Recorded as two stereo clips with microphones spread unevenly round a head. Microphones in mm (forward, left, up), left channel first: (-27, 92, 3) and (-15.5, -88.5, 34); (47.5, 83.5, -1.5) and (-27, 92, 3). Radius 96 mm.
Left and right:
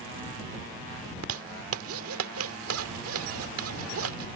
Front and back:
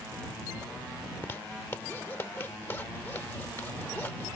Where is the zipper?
85° right.